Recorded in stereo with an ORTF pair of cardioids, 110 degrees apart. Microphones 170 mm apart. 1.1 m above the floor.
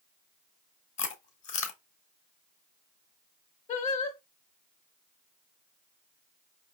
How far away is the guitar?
I don't hear a guitar.